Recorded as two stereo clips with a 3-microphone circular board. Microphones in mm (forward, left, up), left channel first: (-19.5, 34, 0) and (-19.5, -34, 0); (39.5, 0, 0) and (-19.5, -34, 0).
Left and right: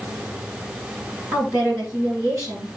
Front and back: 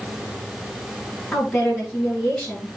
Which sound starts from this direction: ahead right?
A woman speaking, at 1.3 s.